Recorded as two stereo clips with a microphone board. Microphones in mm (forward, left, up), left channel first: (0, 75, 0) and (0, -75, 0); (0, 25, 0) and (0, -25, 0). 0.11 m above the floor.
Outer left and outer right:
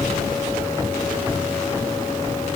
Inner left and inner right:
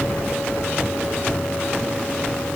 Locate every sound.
Only background noise.